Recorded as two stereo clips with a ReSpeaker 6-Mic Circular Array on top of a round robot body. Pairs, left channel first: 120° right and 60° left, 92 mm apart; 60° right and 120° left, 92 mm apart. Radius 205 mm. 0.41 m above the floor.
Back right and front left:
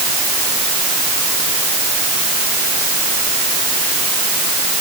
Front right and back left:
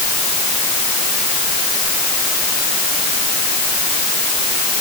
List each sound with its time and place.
Only background noise.